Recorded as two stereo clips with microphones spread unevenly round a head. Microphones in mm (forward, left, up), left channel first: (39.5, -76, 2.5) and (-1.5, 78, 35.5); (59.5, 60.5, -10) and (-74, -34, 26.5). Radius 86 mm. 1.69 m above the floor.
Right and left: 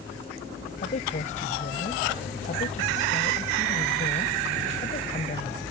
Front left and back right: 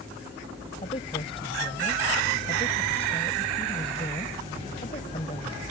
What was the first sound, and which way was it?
A woman speaking, 25° right.